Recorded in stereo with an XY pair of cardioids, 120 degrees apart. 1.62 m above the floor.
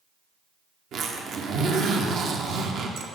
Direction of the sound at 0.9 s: 60° right.